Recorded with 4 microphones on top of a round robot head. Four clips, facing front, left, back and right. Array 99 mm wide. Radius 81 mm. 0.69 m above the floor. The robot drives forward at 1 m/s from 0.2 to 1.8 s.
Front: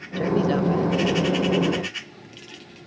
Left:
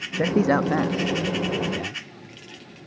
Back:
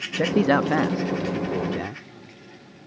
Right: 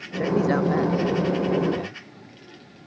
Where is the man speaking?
140° left; by 2.0 s 170° left.